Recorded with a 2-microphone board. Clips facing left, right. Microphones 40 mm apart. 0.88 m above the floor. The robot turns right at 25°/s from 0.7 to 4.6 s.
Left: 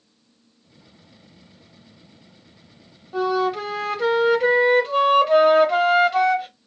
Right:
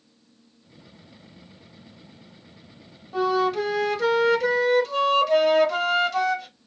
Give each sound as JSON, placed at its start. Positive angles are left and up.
{"t": 3.1, "sound": "a flute", "azimuth_deg": 0, "distance_m": 0.8}